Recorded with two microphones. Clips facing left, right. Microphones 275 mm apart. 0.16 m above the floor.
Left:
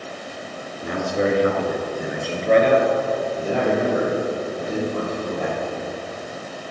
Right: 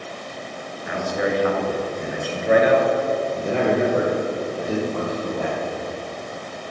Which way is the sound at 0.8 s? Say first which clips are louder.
Left 2 dB; 40° left (ahead or behind).